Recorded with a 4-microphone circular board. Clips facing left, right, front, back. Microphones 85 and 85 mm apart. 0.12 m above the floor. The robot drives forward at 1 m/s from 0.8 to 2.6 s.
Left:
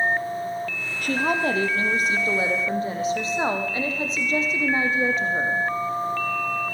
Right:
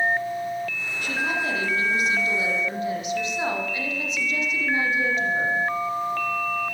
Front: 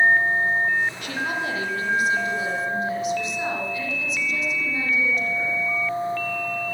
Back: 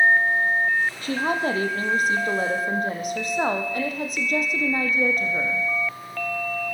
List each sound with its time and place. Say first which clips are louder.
1.0 s a woman speaking: left 4 dB, back 3 dB; 125° left, 4 m; by 5.6 s 145° left, 5 m